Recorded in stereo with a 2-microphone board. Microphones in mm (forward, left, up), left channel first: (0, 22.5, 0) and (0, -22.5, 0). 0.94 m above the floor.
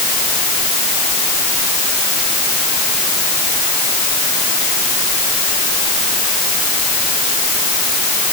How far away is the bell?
I don't hear a bell.